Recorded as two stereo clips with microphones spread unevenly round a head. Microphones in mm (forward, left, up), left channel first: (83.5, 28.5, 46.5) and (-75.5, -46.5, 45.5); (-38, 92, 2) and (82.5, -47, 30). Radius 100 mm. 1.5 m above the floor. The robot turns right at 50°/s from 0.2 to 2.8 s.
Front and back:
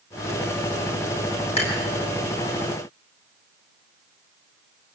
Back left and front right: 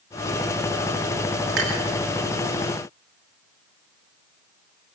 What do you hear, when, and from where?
1.6 s dishes clattering: 30° right, 8 m; by 1.8 s 20° right, 8 m